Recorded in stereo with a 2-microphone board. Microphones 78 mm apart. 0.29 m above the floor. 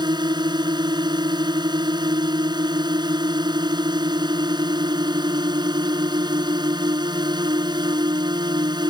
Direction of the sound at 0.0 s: 70° right (ahead or behind).